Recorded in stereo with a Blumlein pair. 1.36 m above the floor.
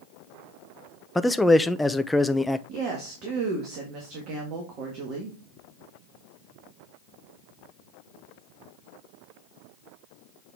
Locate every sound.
1.1 s a man speaking: 5° left, 0.5 m
2.7 s a woman speaking: 35° right, 1.8 m